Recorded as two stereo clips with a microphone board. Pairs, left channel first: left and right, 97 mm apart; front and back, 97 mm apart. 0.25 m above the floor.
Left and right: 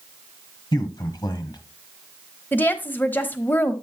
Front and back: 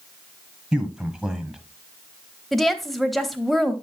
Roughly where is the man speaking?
Left.